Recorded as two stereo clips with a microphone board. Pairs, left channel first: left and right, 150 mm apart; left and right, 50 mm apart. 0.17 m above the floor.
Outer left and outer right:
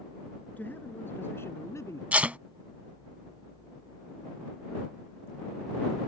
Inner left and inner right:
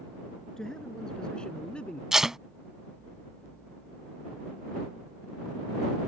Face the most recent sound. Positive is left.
turn(degrees=-10)  # may be behind; listen again after turning